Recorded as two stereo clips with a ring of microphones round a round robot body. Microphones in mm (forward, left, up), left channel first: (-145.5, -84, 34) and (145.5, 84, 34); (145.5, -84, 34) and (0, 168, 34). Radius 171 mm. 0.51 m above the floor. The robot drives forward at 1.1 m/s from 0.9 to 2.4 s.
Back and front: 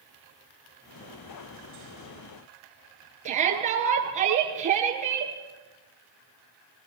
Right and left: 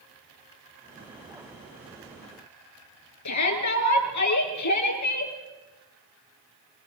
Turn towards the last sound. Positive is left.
turn(degrees=-40)